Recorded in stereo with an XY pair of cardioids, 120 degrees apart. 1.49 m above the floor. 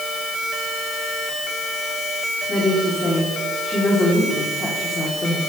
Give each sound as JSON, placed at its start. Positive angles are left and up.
{"t": 2.5, "sound": "a woman speaking", "azimuth_deg": 20, "distance_m": 4.0}